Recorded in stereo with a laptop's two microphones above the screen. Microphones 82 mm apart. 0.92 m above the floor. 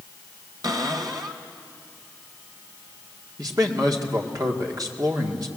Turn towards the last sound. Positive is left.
turn(degrees=-50)  # may be behind; listen again after turning